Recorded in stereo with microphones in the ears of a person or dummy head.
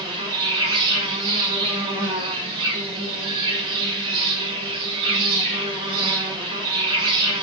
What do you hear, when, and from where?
0.0 s an insect: 30° right (ahead or behind), 1.1 m